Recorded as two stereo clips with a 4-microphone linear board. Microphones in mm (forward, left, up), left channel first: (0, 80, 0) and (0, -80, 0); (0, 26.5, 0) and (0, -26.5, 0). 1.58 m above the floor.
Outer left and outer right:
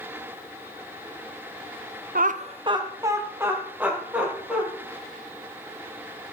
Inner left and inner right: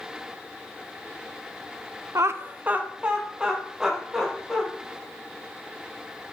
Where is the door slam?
No door slam in this recording.